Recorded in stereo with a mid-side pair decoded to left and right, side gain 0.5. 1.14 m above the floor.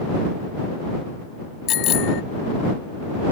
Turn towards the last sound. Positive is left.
turn(degrees=70)